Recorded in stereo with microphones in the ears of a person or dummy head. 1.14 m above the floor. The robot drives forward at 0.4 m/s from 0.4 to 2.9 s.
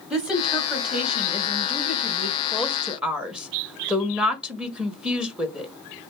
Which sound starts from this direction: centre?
A woman speaking, at 0.1 s.